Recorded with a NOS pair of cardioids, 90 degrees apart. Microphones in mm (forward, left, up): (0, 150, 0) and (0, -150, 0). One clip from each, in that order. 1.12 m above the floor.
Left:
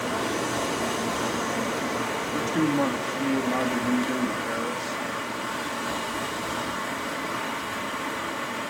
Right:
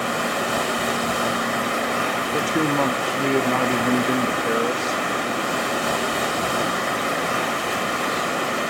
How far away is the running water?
About 1.3 m.